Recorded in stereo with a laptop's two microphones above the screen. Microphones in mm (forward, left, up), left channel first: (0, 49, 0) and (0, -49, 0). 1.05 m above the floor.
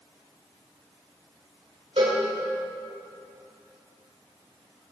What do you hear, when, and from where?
2.0 s a cowbell: 90° right, 3 m